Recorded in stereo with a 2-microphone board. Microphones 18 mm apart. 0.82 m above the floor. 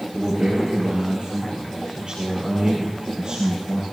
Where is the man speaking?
55° right (ahead or behind), 6 m; by 3.8 s 50° right (ahead or behind), 9 m.